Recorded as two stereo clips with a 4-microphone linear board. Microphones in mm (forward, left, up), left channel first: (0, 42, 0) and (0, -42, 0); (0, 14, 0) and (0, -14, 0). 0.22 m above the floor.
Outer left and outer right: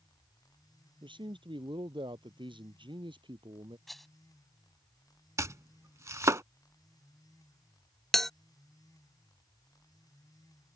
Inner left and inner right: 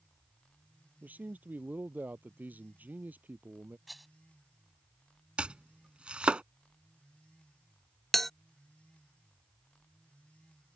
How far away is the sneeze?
No sneeze in this recording.